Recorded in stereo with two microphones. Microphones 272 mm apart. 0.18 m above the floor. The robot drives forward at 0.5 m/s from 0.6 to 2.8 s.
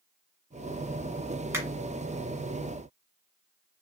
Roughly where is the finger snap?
Centre.